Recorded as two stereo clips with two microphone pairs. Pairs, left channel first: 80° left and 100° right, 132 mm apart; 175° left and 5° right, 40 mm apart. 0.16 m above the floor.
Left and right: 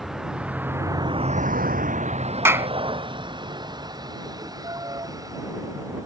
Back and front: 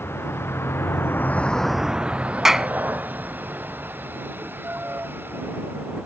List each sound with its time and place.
0.0 s a vehicle: 170° left; by 6.1 s 35° right
2.5 s a clap: 65° right